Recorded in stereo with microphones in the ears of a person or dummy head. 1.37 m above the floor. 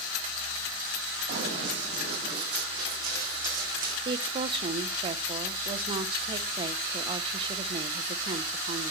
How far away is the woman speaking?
About 0.7 m.